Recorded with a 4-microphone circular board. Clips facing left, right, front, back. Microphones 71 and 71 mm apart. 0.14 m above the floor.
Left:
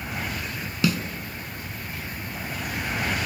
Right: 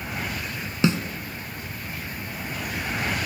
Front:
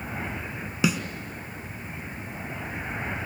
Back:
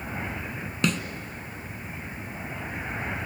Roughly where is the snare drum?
Right.